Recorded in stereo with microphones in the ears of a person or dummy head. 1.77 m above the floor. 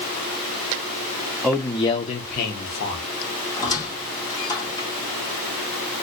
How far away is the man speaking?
About 0.6 m.